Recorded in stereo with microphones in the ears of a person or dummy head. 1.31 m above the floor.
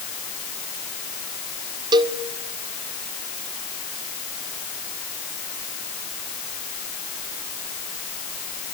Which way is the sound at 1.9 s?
20° right (ahead or behind).